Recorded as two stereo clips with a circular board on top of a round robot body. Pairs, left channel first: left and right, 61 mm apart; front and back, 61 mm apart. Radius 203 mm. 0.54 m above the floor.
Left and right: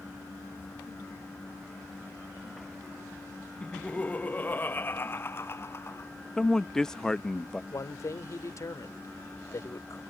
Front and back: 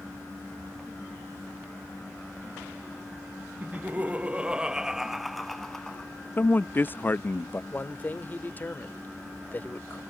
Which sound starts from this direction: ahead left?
A man speaking, at 7.7 s.